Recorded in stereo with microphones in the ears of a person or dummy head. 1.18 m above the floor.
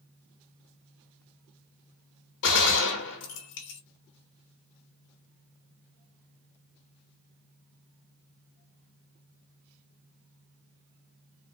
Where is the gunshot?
60° left (ahead or behind), 1.4 m.